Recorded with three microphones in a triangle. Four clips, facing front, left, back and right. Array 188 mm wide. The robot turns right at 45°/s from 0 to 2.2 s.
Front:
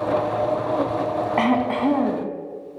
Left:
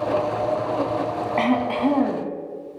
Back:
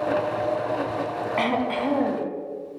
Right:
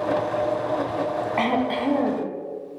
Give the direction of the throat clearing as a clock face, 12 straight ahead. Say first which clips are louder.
Left 3 dB, front 4 dB; 12 o'clock.